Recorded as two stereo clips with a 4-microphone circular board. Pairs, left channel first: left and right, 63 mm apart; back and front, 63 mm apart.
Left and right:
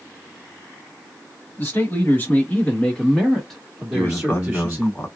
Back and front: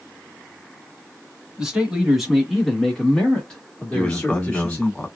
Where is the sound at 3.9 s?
120° left, 1.2 m.